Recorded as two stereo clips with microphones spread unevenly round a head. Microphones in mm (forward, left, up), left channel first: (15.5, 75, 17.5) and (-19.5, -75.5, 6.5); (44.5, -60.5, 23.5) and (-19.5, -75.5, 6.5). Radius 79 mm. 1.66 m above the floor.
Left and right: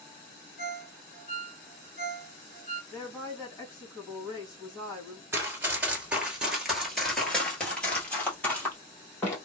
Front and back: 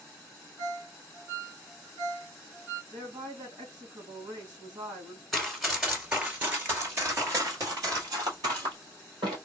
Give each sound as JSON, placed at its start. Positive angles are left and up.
{"t": 0.6, "sound": "a ringtone", "azimuth_deg": 100, "distance_m": 2.0}
{"t": 2.9, "sound": "a woman speaking", "azimuth_deg": 145, "distance_m": 2.5}
{"t": 5.3, "sound": "running footsteps", "azimuth_deg": -35, "distance_m": 1.7}